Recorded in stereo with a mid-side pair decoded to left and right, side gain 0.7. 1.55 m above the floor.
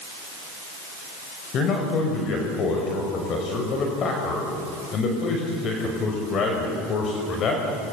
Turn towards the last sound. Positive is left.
turn(degrees=45)